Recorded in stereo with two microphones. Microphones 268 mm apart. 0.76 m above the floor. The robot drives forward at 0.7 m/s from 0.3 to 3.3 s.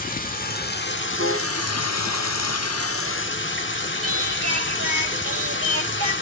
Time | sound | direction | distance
0.0 | running water | 30° left (ahead or behind) | 1.6 m
1.2 | a piano | 55° right (ahead or behind) | 2 m
4.0 | singing | 55° right (ahead or behind) | 1.8 m